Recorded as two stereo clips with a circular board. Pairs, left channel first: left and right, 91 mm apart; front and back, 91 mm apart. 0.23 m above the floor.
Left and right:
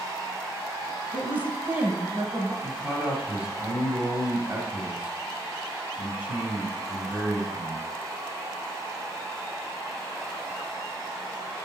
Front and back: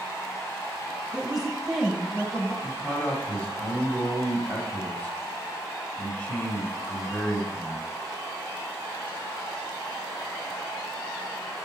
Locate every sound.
1.1 s a woman speaking: 125° right, 1.3 m; by 2.5 s 65° right, 1.4 m
2.6 s a man speaking: 35° right, 1.6 m